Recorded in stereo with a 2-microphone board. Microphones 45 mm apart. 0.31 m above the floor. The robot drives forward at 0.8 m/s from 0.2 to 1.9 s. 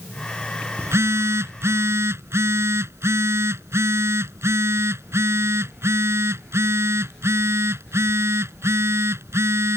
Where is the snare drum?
No snare drum in this recording.